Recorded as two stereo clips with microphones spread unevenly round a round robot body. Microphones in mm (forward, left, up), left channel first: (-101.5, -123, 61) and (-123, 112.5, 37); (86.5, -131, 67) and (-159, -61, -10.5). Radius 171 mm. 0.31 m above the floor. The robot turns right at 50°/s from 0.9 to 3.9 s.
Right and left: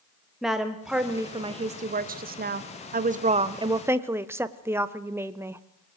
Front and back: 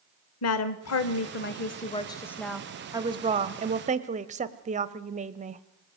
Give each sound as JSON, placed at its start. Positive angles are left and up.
{"t": 0.4, "sound": "a woman speaking", "azimuth_deg": 15, "distance_m": 1.0}